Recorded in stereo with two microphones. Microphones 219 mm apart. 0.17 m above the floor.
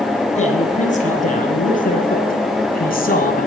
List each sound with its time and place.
0.4 s a man speaking: 30° left (ahead or behind), 3.5 m; by 3.5 s 40° left (ahead or behind), 2 m